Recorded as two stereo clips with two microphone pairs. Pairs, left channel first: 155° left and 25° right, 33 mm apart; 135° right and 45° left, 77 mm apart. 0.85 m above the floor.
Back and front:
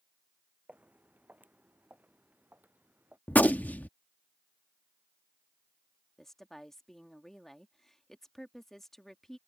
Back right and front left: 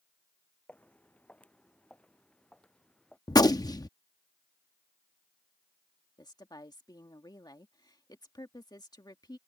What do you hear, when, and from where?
0.7 s footsteps: 65° right; by 3.2 s 60° right
3.3 s a gunshot: 175° right
6.2 s a woman speaking: 130° right